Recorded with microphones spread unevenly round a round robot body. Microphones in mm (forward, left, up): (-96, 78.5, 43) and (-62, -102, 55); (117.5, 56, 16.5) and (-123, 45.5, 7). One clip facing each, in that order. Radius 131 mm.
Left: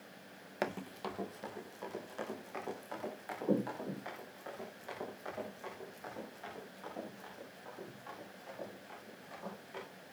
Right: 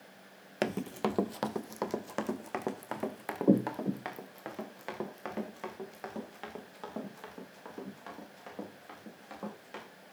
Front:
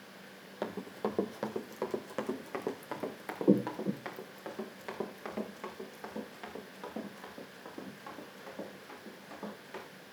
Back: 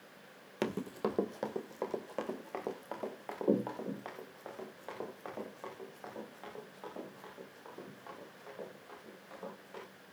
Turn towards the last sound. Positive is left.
turn(degrees=-55)